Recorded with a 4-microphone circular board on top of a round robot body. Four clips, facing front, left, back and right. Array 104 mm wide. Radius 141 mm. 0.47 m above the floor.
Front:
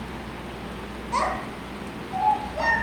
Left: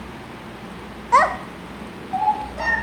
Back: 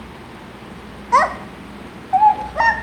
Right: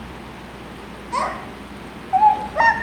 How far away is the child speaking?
About 0.9 m.